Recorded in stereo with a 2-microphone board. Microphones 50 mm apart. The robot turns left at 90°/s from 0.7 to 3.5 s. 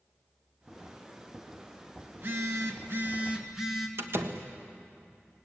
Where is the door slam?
60° right (ahead or behind), 1.5 m.